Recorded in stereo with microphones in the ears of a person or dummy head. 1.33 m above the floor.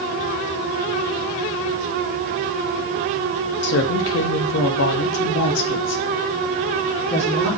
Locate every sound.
3.6 s a woman speaking: 50° left (ahead or behind), 0.7 m; by 7.5 s 60° left (ahead or behind), 2.5 m